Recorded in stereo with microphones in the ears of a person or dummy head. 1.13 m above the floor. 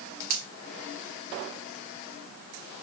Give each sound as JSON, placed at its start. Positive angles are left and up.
{"t": 0.3, "sound": "a finger snap", "side_deg": -70, "distance_m": 2.0}